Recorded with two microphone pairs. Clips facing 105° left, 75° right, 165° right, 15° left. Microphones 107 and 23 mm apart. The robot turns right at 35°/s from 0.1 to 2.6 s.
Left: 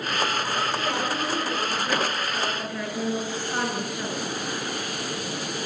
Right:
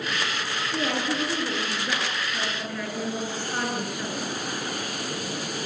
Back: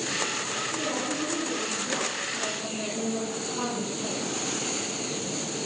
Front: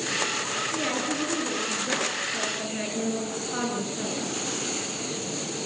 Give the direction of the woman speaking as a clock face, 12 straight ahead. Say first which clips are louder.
Even, front 2 dB; 1 o'clock.